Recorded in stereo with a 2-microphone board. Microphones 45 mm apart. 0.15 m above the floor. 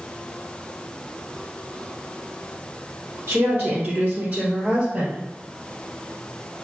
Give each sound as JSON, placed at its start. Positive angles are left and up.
{"t": 3.3, "sound": "a woman speaking", "side_deg": -55, "distance_m": 1.9}